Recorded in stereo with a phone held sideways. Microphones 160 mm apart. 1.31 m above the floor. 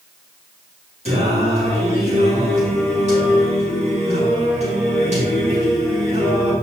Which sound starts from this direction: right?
Singing, at 1.1 s.